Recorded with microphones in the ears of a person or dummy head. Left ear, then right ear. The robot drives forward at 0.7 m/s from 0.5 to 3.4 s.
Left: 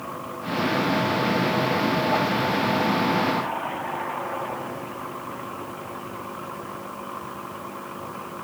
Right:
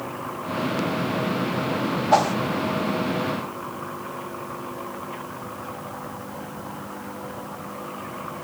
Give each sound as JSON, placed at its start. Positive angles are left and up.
{"t": 2.1, "sound": "a whoosh", "side_deg": -70, "distance_m": 0.8}